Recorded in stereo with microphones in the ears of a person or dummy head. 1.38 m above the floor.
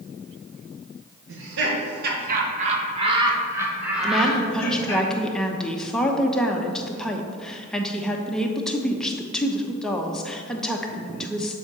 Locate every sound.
1.3 s laughter: 75° right (ahead or behind), 1.8 m; by 5.0 s 15° left (ahead or behind), 2 m
4.0 s a woman speaking: 5° left (ahead or behind), 0.9 m